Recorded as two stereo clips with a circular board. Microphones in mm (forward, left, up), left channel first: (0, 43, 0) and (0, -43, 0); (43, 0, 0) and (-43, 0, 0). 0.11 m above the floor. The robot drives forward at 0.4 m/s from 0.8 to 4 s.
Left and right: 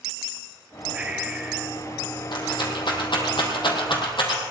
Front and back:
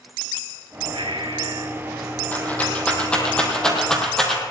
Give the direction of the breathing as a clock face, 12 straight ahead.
6 o'clock.